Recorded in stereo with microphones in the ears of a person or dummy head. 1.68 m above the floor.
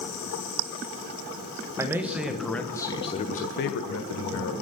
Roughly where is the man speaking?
Centre.